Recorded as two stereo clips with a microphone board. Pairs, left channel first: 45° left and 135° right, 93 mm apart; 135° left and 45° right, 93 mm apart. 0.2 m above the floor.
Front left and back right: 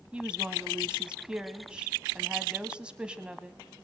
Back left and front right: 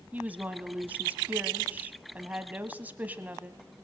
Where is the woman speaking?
80° right, 1.1 m.